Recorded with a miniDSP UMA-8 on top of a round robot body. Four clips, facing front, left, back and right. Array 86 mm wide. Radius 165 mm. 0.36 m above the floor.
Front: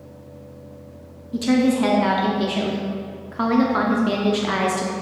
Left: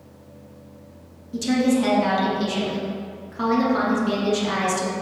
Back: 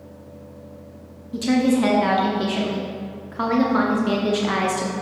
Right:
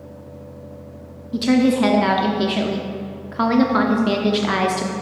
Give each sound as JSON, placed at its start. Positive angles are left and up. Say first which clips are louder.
{"t": 1.3, "sound": "a woman speaking", "louder": "right 4 dB, front 1 dB", "azimuth_deg": -85, "distance_m": 0.9}